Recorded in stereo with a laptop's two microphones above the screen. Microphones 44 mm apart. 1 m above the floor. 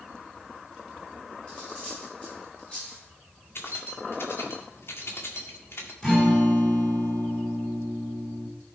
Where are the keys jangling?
65° left (ahead or behind), 1.7 m.